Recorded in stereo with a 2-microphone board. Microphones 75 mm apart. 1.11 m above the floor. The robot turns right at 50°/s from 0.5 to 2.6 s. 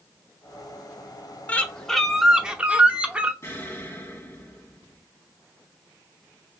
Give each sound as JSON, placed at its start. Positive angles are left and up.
{"t": 1.5, "sound": "a bird", "azimuth_deg": 150, "distance_m": 0.8}
{"t": 3.4, "sound": "an explosion", "side_deg": 35, "distance_m": 2.0}